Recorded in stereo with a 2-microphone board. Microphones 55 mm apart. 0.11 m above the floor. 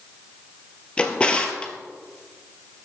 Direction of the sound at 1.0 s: 20° left (ahead or behind).